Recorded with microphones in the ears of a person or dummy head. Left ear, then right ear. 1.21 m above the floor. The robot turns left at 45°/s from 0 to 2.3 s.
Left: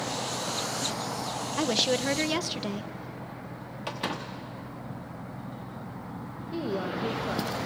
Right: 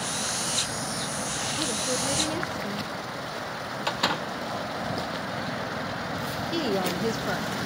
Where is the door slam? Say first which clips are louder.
Right 6 dB; 25° right (ahead or behind), 1.1 m.